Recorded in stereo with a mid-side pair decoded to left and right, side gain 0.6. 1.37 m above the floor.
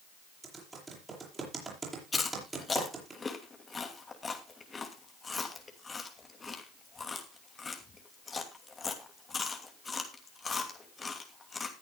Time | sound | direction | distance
0.4 | typing on a keyboard | 25° right | 7 m
2.1 | chewing | 25° left | 2.5 m